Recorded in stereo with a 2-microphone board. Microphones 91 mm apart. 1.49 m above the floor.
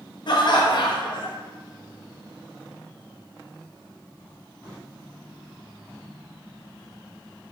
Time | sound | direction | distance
0.3 | laughter | 55° left (ahead or behind) | 0.6 m